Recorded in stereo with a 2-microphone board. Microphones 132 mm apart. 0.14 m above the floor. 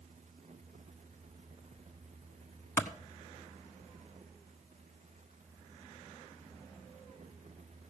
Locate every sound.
2.8 s a clap: 20° left (ahead or behind), 0.8 m